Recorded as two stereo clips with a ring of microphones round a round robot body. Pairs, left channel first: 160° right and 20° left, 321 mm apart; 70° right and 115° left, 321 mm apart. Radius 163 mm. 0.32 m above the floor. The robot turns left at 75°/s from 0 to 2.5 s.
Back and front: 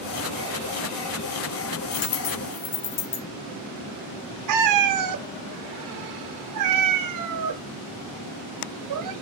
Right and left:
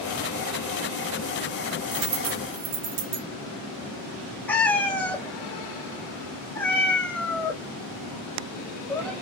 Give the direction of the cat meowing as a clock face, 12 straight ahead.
11 o'clock.